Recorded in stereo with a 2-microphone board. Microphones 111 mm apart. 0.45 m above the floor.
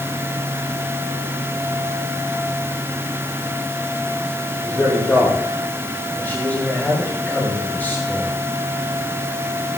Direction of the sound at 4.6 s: 15° left (ahead or behind).